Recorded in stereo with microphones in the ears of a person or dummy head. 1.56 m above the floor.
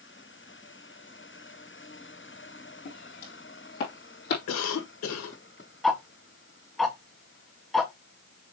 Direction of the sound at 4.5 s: 85° left.